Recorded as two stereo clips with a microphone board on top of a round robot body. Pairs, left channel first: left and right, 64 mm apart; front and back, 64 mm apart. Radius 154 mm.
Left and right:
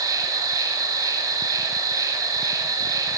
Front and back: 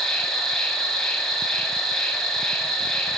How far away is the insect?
About 4 m.